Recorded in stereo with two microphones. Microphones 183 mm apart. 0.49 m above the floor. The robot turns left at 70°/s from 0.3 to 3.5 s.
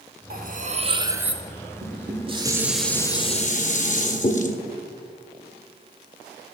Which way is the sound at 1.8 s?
110° right.